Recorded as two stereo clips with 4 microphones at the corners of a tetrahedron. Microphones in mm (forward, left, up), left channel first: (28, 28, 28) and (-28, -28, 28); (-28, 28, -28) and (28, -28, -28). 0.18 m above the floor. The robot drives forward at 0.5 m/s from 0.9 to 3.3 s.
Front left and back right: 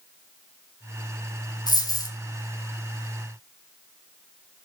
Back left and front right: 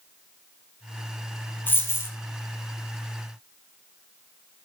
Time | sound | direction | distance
1.7 | a dropped coin | 75° left | 1.8 m